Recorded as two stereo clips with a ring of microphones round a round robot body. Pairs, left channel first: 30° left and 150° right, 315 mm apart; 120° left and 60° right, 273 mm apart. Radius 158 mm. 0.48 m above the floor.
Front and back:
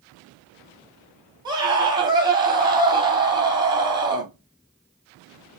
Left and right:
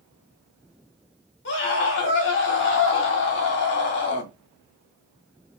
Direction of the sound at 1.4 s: 140° left.